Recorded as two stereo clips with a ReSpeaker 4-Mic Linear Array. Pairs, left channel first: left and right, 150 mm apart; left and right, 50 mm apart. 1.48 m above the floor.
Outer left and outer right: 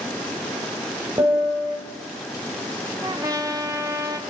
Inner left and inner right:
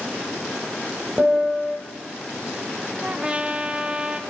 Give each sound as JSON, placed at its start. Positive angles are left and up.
{"t": 1.2, "sound": "a piano", "side_deg": -25, "distance_m": 5.5}
{"t": 3.0, "sound": "a trumpet", "side_deg": -20, "distance_m": 2.5}